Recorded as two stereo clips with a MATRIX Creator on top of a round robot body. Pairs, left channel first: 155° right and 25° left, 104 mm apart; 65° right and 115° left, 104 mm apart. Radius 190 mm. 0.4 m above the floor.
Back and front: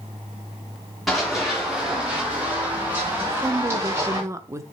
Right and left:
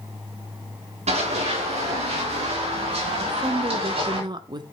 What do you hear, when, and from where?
1.1 s running footsteps: 115° left, 5.5 m; by 4.2 s 85° left, 7 m
3.2 s a woman speaking: 80° left, 1.1 m